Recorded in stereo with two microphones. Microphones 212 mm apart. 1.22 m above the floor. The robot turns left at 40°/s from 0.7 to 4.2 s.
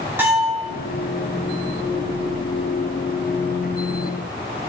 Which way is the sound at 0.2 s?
10° right (ahead or behind).